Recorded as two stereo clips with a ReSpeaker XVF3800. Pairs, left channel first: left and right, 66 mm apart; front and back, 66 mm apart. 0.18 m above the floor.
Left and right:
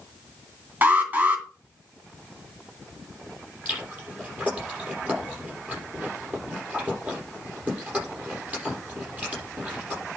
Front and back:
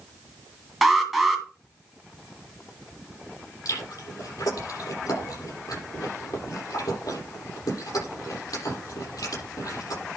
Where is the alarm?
100° right, 2.5 m.